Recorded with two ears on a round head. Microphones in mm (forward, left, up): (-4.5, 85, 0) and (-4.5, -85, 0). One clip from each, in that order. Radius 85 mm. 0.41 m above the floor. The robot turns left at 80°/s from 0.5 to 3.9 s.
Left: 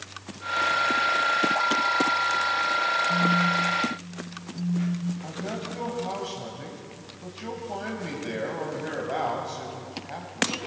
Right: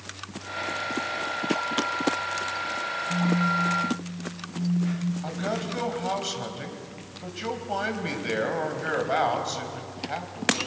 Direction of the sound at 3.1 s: 15° left.